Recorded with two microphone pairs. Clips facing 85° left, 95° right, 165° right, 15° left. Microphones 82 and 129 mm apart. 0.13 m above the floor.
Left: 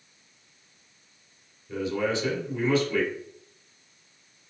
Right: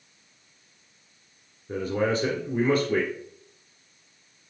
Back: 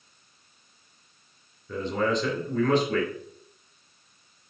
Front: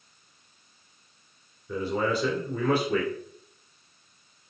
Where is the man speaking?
65° right, 2.5 m.